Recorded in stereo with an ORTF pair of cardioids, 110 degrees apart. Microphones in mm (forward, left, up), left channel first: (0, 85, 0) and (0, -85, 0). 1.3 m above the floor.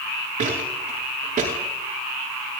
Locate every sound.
0.4 s footsteps: 55° right, 7.5 m